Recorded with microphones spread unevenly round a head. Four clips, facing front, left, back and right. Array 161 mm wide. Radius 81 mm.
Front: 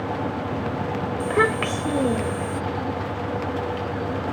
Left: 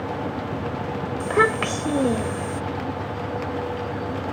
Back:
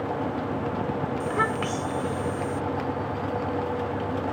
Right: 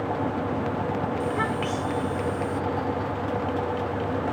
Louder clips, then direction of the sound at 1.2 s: Left 5 dB, front 7 dB; 55° left.